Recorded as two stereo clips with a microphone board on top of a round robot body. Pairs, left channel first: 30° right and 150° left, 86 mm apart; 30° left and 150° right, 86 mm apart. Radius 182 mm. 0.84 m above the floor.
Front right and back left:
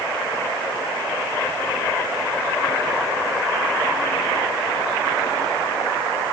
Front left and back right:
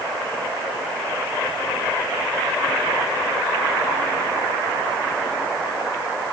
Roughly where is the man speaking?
No man speaking in this recording.